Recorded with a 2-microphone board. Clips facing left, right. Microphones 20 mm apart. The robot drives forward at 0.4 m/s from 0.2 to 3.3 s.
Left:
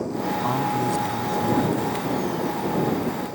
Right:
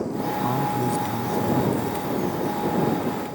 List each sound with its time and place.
0.4 s a man speaking: 25° left (ahead or behind); by 2.0 s 15° left (ahead or behind)